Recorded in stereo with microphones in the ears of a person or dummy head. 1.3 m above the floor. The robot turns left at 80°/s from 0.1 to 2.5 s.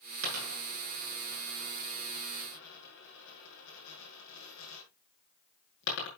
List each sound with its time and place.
0.2 s a dropped coin: 80° right, 7 m; by 6.1 s 80° left, 7 m